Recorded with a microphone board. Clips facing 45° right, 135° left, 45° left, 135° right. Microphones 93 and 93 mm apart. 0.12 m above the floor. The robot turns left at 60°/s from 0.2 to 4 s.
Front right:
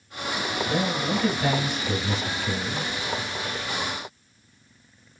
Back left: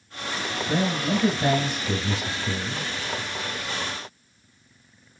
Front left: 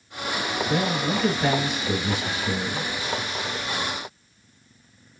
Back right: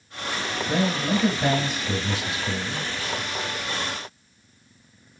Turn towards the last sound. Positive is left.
turn(degrees=-5)